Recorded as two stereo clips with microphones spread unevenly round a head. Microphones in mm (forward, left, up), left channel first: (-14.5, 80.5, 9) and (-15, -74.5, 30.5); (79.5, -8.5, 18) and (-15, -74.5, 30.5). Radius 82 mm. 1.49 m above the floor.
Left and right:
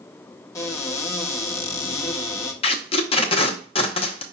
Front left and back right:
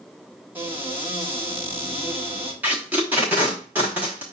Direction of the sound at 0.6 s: 160° left.